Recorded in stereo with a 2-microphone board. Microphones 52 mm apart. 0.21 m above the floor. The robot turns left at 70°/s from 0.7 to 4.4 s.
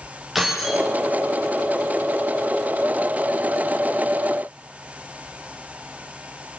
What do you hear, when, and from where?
0.3 s keys jangling: centre (ahead or behind), 6.5 m; by 0.9 s 15° right (ahead or behind), 6.5 m